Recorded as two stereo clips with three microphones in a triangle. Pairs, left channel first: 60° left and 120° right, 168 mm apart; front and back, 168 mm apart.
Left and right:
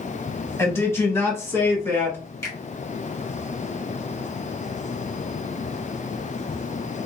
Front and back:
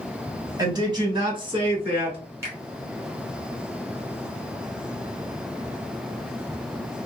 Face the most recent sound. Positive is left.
turn(degrees=120)